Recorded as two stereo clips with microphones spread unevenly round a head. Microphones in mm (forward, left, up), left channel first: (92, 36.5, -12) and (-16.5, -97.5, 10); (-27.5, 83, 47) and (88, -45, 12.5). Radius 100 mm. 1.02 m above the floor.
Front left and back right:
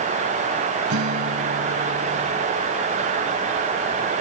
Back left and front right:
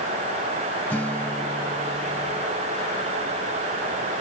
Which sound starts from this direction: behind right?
A guitar, at 0.9 s.